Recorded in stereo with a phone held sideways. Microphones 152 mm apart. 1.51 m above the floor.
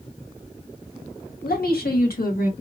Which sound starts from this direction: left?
A woman speaking, at 1.4 s.